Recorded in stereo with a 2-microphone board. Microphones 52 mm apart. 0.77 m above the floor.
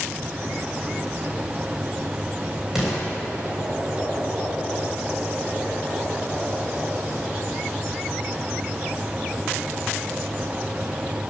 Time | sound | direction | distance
2.8 | an explosion | 10° right (ahead or behind) | 3.5 m